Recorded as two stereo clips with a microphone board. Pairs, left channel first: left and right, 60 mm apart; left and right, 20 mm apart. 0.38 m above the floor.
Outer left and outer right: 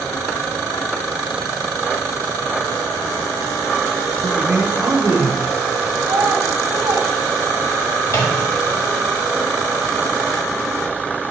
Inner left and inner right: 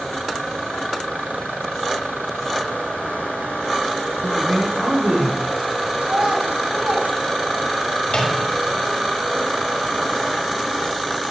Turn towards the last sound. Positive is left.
turn(degrees=55)  # may be behind; listen again after turning